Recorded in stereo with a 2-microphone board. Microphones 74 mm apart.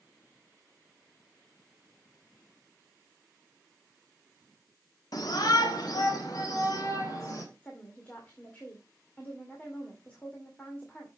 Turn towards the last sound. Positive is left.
turn(degrees=20)  # may be behind; listen again after turning